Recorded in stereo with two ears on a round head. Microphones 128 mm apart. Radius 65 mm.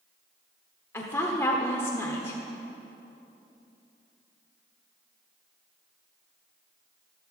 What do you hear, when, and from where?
0.9 s a woman speaking: 15° left (ahead or behind), 1.0 m